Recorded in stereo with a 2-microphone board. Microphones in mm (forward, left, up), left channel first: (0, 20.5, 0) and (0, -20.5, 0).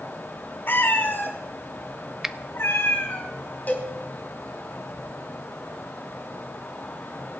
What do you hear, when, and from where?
0.7 s a cat meowing: 55° left (ahead or behind), 2.5 m; by 3.2 s 65° left (ahead or behind), 3 m
2.2 s a finger snap: 15° right (ahead or behind), 0.5 m
3.7 s a cowbell: 40° left (ahead or behind), 4 m